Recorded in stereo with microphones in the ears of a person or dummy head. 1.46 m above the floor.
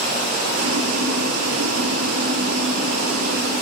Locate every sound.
0.5 s boiling: 80° right, 0.6 m